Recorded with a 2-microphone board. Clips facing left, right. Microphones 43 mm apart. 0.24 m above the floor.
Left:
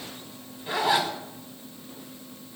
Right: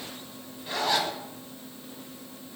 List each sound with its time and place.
0.7 s a zipper: 15° left (ahead or behind), 1.1 m